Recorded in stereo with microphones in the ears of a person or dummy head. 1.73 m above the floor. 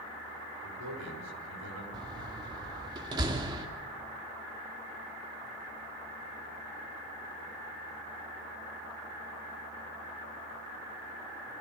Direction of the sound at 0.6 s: 80° right.